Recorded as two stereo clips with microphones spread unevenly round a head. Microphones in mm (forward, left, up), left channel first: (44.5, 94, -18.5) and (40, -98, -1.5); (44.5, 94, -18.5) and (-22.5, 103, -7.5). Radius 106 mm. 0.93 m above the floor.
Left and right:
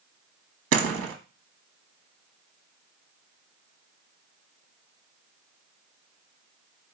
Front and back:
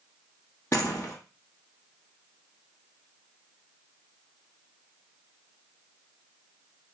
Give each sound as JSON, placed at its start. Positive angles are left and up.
{"t": 0.7, "sound": "a door slam", "azimuth_deg": -90, "distance_m": 0.9}